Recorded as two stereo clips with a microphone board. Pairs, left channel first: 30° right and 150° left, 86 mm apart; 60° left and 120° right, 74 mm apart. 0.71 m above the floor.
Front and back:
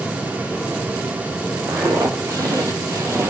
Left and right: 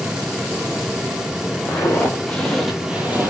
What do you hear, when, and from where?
1.7 s footsteps: 110° left, 1.3 m; by 3.3 s 165° right, 1.0 m